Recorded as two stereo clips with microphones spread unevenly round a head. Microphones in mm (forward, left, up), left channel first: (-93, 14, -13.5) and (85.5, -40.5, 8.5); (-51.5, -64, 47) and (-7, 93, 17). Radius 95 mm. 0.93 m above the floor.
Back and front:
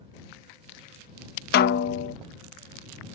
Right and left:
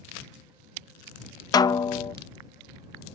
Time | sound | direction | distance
1.5 | a snare drum | 175° right | ?